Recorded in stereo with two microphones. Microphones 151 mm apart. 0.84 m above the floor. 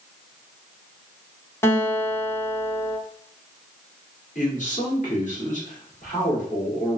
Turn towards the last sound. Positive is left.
turn(degrees=60)  # may be behind; listen again after turning